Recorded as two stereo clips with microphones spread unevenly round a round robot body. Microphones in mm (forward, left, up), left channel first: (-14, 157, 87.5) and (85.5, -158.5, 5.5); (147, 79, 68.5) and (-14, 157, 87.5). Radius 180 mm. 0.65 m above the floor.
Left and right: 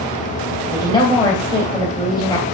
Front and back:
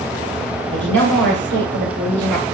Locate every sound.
0.7 s a woman speaking: 170° right, 3 m